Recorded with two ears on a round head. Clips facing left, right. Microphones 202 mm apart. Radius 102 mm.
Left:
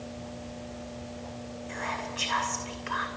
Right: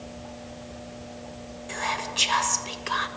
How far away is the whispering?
About 2.5 m.